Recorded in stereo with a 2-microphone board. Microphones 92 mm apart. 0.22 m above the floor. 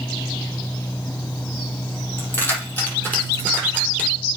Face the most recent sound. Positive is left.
turn(degrees=15)  # may be behind; listen again after turning